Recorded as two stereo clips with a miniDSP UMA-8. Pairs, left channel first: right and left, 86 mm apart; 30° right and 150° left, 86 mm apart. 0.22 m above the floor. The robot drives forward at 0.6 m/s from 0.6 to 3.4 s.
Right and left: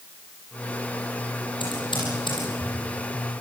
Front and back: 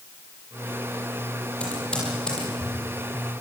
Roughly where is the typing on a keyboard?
Right.